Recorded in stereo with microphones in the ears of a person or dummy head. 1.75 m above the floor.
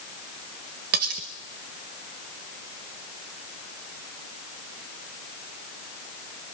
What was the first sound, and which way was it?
Cutlery clinking, 45° right (ahead or behind).